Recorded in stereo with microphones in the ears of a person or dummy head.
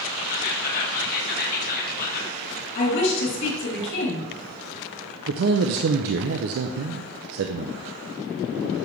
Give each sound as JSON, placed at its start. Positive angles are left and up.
{"t": 0.3, "sound": "whispering", "side_deg": 45, "distance_m": 1.7}
{"t": 2.8, "sound": "a woman speaking", "side_deg": 60, "distance_m": 3.5}
{"t": 5.3, "sound": "a man speaking", "side_deg": -50, "distance_m": 0.5}